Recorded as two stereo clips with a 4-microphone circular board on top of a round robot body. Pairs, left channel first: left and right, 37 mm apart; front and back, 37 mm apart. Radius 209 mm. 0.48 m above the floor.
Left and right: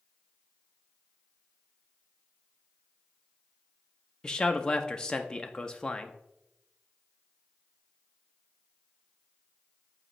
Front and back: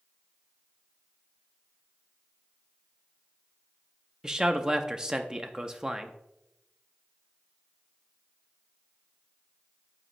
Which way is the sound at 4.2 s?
140° left.